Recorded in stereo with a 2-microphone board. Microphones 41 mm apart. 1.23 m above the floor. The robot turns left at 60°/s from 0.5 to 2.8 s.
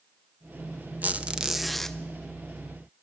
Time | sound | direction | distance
1.0 | a squeak | 140° right | 0.9 m